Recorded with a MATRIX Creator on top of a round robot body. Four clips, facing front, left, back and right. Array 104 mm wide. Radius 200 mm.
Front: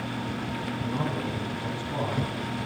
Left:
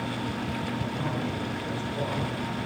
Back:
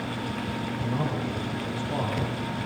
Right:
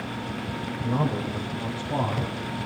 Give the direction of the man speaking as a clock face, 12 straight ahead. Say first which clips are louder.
Right 4 dB, back 1 dB; 3 o'clock.